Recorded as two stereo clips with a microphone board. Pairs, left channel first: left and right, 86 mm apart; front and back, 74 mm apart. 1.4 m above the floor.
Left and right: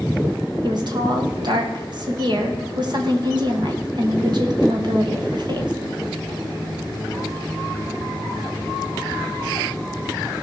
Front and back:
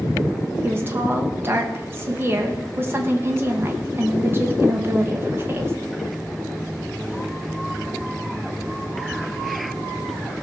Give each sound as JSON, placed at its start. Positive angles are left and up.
{"t": 0.6, "sound": "a woman speaking", "azimuth_deg": -120, "distance_m": 1.6}